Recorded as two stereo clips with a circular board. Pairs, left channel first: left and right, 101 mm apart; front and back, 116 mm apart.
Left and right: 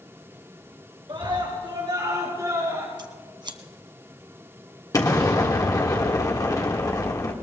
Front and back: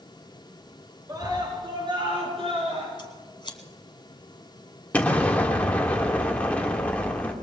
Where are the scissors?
50° right, 1.3 m.